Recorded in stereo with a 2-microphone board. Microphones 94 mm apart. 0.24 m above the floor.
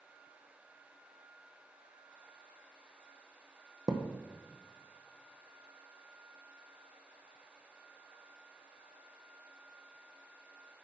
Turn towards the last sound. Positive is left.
turn(degrees=-45)  # may be behind; listen again after turning